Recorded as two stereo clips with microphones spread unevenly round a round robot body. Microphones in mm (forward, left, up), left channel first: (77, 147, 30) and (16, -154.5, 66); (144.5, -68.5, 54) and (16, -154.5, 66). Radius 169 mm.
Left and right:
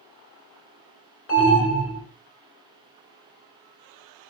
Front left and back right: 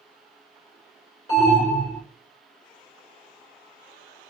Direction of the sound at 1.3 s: 80° left.